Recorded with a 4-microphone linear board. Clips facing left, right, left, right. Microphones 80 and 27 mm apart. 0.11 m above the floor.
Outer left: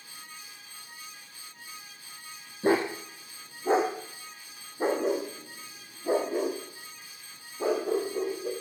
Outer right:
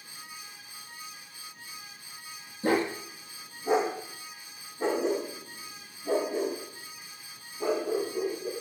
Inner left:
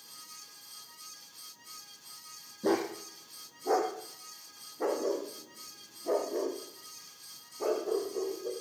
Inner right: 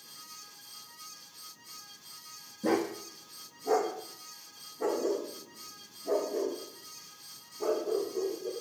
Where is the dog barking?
20° left (ahead or behind), 2 m; by 8.5 s 55° left (ahead or behind), 5.5 m.